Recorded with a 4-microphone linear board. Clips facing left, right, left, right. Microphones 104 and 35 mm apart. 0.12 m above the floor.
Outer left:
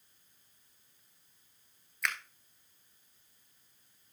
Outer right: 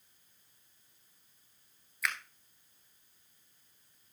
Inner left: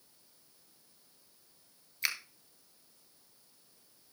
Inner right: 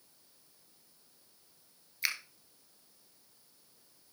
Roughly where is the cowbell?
I don't hear a cowbell.